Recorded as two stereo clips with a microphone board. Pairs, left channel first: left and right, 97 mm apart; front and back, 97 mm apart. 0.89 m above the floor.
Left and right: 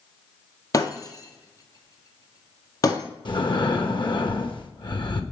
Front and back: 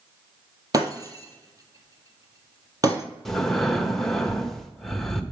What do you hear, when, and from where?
0.7 s breaking glass: 135° left, 1.5 m
3.2 s breathing: 85° left, 1.0 m